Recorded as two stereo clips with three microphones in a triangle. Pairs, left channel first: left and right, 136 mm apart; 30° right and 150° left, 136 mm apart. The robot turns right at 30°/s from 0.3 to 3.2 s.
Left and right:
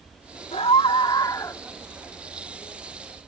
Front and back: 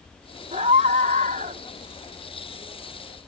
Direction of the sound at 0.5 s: 125° left.